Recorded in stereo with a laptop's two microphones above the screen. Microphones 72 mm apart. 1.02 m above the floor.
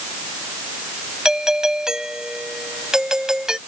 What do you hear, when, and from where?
1.2 s a doorbell: 10° right (ahead or behind)